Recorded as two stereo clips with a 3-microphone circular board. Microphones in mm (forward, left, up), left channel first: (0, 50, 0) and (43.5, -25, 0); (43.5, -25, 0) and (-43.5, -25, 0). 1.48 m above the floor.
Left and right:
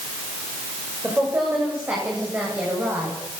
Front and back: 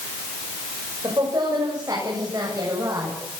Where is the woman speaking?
135° right, 7.5 m; by 3.2 s 125° right, 10.5 m.